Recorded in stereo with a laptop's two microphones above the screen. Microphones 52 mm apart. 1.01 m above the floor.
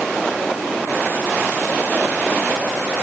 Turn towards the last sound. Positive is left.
No sound to turn to.